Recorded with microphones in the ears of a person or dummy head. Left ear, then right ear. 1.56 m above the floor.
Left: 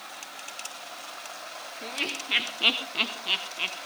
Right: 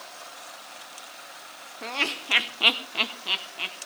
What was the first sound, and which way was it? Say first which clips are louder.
Laughter: right 4 dB; 50° right (ahead or behind).